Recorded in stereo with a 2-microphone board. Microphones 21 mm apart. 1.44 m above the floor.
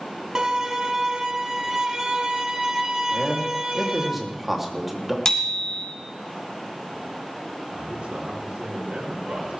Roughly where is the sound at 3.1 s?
Centre.